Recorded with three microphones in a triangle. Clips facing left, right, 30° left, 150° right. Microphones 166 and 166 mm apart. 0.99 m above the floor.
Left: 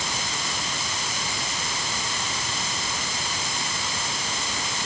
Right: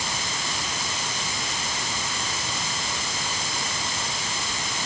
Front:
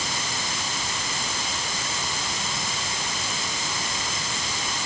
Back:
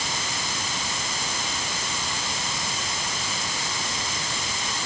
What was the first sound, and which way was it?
Only background noise.